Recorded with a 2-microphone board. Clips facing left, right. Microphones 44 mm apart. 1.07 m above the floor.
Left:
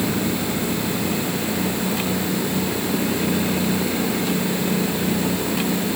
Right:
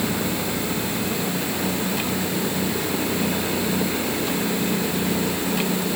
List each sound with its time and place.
Only background noise.